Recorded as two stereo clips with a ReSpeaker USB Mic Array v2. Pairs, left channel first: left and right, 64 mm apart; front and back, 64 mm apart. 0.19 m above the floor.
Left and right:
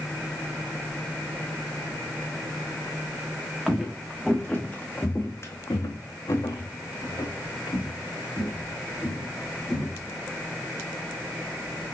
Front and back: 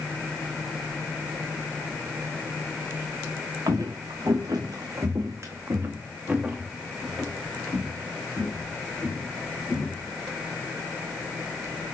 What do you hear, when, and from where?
3.7 s footsteps: 175° right, 1.2 m; by 10.1 s 65° left, 2.5 m